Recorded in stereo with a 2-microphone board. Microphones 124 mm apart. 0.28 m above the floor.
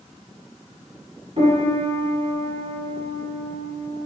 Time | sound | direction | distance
1.4 | a piano | 60° right (ahead or behind) | 1.3 m